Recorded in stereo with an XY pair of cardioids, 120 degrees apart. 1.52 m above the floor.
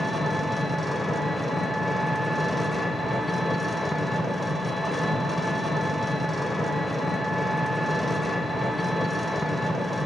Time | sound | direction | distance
0.0 | an engine running | straight ahead | 0.9 m